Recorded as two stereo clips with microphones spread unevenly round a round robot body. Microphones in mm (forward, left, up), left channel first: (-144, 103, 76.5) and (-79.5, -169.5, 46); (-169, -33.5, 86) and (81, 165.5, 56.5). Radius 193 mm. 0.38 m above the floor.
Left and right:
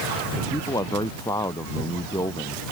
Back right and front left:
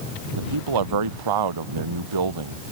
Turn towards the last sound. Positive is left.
turn(degrees=20)